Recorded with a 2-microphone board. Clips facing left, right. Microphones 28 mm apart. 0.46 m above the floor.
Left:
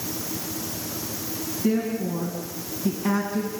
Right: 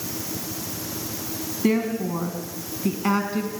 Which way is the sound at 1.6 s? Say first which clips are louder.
Right 2 dB; 75° right (ahead or behind).